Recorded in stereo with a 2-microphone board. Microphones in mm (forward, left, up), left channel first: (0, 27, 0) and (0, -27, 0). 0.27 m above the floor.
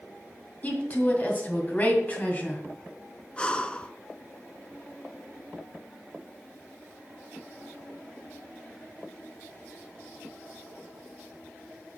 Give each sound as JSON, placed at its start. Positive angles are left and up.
{"t": 0.6, "sound": "a woman speaking", "side_deg": 30, "distance_m": 2.0}
{"t": 3.4, "sound": "breathing", "side_deg": 20, "distance_m": 0.6}